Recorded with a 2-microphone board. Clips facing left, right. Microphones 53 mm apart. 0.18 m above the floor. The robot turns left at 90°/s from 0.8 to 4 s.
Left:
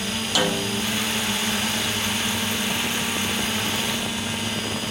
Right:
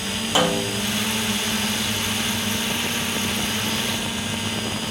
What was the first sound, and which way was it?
A snare drum, 25° right (ahead or behind).